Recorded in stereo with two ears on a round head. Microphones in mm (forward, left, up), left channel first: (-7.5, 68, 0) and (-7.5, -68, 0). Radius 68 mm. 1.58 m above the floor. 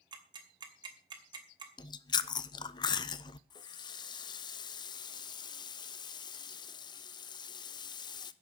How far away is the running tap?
About 0.7 m.